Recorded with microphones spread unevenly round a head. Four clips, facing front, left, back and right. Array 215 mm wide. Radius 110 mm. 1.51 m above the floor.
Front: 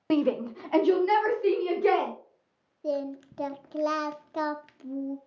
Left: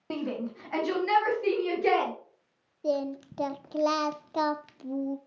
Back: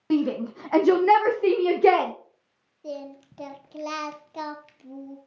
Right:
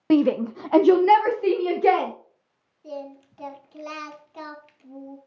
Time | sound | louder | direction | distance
0.1 | a shout | right 14 dB, back 1 dB | 80° right | 0.7 m
2.8 | singing | left 7 dB, front 6 dB | 75° left | 0.5 m